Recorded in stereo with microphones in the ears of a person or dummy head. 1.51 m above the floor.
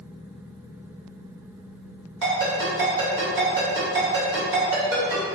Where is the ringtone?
70° right (ahead or behind), 2.0 m.